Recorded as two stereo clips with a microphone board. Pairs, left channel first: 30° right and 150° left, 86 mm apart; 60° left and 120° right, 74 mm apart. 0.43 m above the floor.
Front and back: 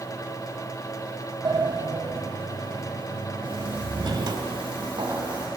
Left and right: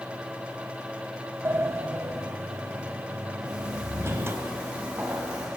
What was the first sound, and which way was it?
A sliding door, 175° right.